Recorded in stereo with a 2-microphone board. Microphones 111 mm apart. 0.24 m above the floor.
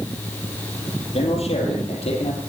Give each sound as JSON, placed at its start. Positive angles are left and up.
{"t": 1.1, "sound": "a man speaking", "side_deg": 65, "distance_m": 6.5}